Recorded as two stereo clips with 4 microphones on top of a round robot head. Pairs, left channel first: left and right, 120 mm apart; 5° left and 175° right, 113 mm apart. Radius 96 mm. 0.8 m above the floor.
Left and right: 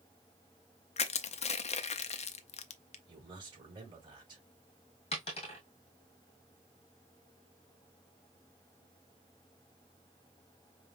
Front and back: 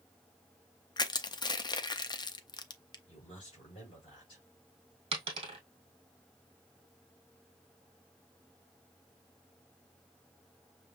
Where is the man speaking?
40° right, 3.5 m.